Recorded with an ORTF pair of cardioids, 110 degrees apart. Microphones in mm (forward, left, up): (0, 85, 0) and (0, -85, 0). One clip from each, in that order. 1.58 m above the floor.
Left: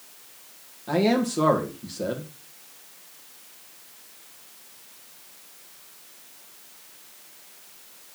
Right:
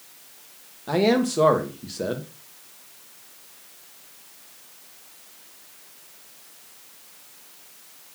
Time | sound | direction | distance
0.9 | a man speaking | 15° right | 2.5 m